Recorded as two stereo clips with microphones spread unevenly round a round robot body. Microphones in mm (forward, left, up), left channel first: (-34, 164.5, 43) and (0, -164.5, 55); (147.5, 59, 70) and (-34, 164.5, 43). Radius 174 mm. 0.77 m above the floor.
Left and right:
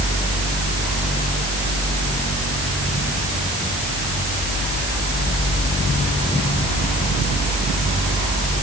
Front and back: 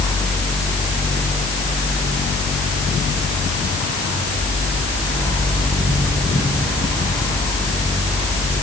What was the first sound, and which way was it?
Only background noise.